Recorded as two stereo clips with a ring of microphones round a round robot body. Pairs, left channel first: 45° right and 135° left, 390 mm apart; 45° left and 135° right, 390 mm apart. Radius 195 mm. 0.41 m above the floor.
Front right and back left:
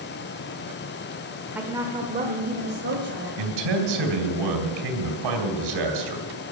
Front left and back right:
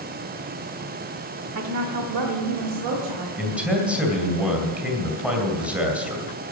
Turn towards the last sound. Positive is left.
turn(degrees=140)